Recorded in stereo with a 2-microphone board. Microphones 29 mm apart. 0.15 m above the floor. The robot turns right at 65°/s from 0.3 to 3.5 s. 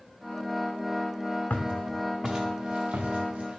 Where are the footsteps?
55° left (ahead or behind), 0.7 m; by 3.6 s 50° right (ahead or behind), 1.5 m.